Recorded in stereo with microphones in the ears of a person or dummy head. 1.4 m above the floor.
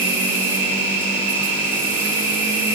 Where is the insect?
10° right (ahead or behind), 4 m.